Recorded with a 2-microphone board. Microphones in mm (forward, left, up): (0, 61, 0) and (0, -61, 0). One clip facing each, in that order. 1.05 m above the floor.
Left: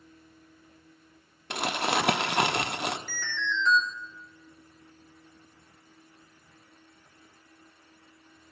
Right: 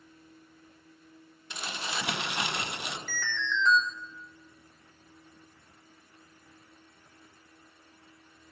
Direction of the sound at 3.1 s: 55° right (ahead or behind).